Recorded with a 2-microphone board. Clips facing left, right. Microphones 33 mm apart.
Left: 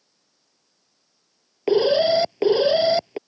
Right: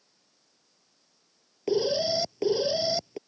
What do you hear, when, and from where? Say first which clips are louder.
1.7 s an alarm: left 8 dB; 40° left (ahead or behind)